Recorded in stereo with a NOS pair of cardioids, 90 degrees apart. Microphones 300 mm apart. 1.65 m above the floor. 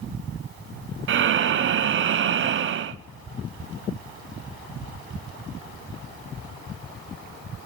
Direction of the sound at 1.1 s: 45° right.